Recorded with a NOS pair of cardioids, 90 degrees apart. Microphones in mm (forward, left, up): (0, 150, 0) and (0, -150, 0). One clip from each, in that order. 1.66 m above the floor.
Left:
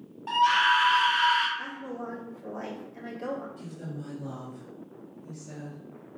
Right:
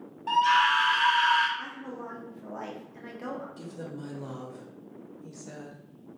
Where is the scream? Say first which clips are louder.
Even; straight ahead, 1.4 m.